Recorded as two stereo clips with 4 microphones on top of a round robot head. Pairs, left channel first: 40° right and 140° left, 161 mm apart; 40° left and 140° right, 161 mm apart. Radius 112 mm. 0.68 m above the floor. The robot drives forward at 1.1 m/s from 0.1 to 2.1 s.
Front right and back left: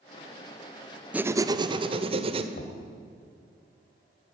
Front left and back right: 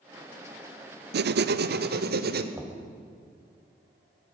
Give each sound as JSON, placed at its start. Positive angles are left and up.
{"t": 1.1, "sound": "writing", "azimuth_deg": -140, "distance_m": 0.8}
{"t": 2.5, "sound": "knocking", "azimuth_deg": -60, "distance_m": 3.5}